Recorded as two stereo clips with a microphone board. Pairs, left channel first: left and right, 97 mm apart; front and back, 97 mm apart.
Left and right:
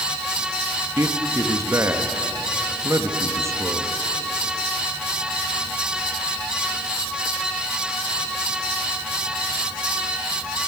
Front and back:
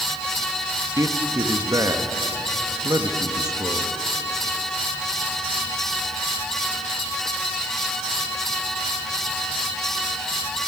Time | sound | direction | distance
1.0 | a man speaking | 140° right | 1.4 m